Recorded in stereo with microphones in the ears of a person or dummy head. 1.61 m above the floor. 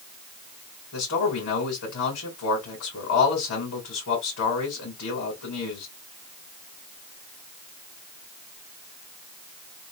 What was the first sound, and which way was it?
A man speaking, 70° left (ahead or behind).